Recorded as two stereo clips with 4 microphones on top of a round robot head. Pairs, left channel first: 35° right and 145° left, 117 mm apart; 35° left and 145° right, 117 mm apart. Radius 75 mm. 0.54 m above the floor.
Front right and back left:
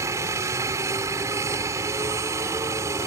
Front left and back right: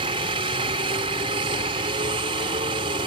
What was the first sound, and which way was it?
A helicopter, 160° right.